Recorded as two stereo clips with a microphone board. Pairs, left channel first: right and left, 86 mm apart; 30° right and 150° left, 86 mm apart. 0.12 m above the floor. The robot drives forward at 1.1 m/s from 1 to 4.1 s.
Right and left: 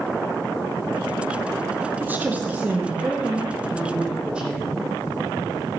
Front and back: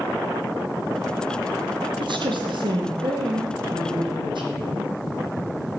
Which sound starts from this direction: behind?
A woman speaking, at 2.0 s.